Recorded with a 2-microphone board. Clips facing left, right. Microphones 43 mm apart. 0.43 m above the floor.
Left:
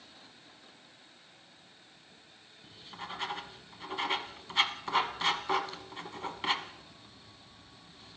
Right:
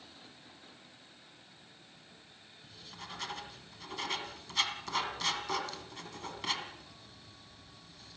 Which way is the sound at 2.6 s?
20° left (ahead or behind).